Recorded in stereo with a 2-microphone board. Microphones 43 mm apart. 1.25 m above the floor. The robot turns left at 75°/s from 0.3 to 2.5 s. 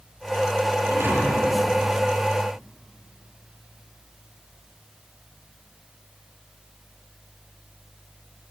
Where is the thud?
85° right, 8 m; by 1.6 s 140° right, 8 m.